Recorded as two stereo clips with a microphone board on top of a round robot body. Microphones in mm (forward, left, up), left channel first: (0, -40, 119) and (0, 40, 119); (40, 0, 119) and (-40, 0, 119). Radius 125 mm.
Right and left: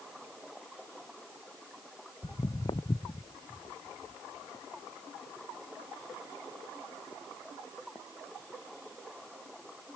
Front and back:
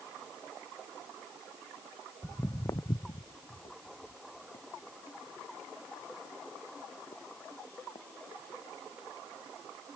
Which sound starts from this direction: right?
Footsteps, at 2.2 s.